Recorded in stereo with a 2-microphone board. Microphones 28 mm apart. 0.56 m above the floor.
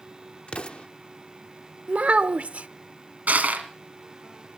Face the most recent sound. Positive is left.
turn(degrees=-85)